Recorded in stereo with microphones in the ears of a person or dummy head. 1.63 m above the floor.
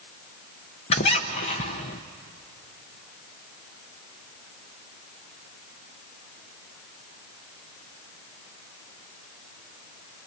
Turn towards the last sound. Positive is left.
turn(degrees=25)  # may be behind; listen again after turning